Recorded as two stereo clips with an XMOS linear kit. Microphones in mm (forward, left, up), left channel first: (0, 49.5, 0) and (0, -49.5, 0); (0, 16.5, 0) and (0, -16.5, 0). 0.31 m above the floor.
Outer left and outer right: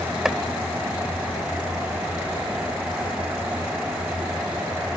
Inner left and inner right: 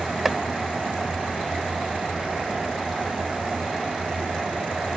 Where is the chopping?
5° right (ahead or behind).